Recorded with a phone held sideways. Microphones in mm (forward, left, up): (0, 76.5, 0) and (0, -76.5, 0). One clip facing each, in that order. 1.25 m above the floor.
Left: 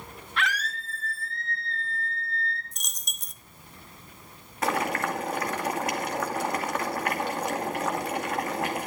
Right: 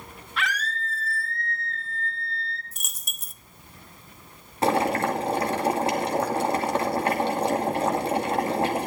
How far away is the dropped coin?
About 0.7 m.